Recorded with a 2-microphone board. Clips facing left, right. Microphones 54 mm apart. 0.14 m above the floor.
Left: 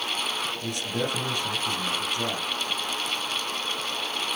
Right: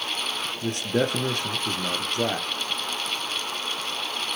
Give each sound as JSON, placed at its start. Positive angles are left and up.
{"t": 0.6, "sound": "a man speaking", "side_deg": -50, "distance_m": 1.9}